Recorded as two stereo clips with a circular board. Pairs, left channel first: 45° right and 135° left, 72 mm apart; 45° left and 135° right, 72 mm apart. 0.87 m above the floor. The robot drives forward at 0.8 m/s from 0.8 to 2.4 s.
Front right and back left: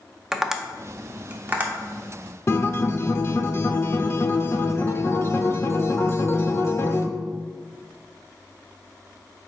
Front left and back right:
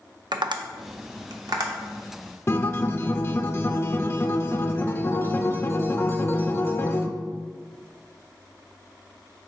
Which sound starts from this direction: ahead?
A guitar, at 2.5 s.